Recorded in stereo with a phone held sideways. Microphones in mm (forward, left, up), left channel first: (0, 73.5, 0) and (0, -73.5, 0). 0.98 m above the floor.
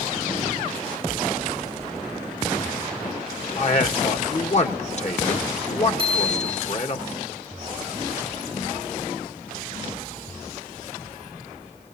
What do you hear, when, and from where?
3.6 s a man speaking: 50° left (ahead or behind), 1.1 m
6.0 s a bicycle bell: 40° right (ahead or behind), 7 m